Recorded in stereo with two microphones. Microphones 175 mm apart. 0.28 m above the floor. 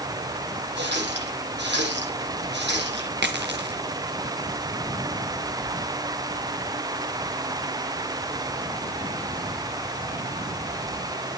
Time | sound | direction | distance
0.8 | a running tap | 80° right | 7.5 m
3.2 | a dropped coin | 80° right | 1.6 m